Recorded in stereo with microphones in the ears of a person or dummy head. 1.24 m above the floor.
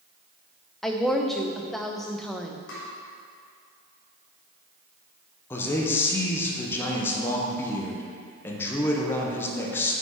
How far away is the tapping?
About 1.6 m.